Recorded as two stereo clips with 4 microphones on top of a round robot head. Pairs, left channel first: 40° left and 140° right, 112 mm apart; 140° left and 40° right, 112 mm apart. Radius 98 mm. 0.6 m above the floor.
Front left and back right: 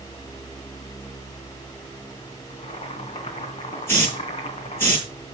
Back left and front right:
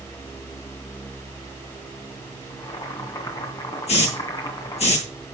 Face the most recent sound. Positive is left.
turn(degrees=110)